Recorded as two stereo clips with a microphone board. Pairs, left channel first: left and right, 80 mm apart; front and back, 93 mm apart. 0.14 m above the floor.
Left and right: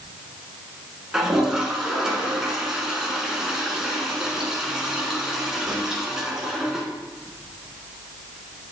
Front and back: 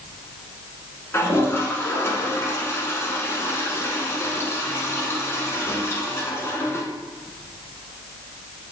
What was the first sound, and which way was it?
A toilet flushing, 10° right.